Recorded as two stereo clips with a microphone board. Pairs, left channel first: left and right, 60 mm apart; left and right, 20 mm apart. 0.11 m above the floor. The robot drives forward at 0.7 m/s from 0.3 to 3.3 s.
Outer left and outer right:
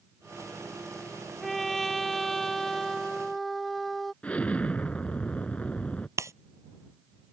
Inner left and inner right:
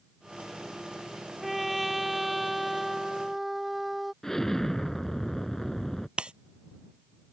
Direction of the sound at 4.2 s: 20° left (ahead or behind).